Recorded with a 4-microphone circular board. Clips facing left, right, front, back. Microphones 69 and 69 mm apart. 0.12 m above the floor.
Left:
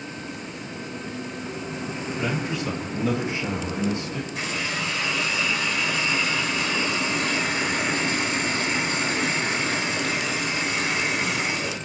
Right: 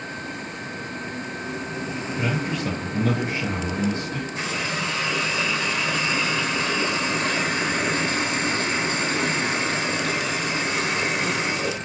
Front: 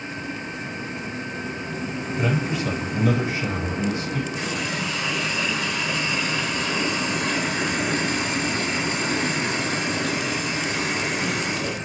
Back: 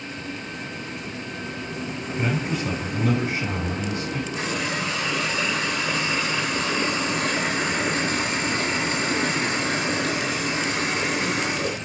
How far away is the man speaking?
About 3 m.